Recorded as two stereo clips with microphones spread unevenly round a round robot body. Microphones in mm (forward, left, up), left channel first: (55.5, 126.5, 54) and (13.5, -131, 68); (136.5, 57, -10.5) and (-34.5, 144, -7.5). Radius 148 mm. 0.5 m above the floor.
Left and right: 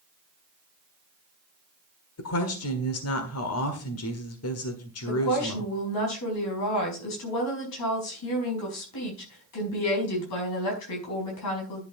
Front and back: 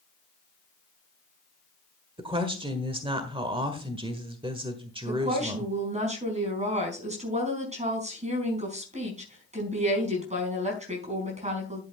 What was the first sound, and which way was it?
A woman speaking, 90° left.